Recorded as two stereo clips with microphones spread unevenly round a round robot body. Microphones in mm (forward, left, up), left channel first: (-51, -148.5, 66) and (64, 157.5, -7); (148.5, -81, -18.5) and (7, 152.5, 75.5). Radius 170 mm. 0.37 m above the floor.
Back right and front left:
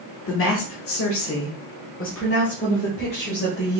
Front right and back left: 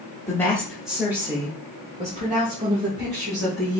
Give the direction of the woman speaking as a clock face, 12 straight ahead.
3 o'clock.